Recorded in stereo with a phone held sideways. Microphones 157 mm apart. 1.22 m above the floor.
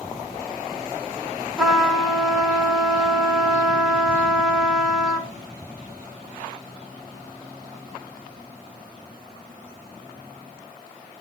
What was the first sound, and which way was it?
A trumpet, 5° right (ahead or behind).